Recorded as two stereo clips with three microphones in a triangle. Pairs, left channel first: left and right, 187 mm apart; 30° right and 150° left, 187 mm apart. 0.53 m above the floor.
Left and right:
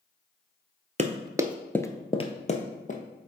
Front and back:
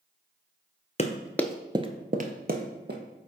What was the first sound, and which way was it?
Running footsteps, 65° right.